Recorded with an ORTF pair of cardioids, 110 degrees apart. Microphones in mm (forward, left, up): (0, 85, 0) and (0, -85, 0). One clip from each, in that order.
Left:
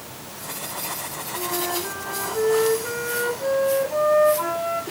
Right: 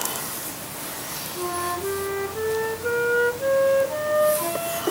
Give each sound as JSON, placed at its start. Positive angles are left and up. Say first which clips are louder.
{"t": 1.4, "sound": "a flute", "louder": "even", "azimuth_deg": 0, "distance_m": 2.0}